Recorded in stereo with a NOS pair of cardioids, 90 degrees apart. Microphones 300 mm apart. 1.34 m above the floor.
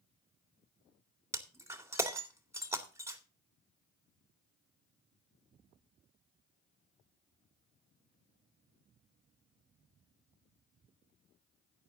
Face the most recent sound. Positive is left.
turn(degrees=-10)